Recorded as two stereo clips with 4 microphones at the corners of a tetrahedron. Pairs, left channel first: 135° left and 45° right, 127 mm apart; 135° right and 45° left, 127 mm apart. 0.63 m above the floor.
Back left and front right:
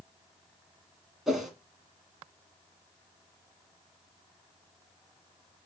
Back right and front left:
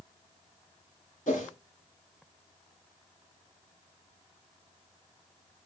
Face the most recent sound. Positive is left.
turn(degrees=-135)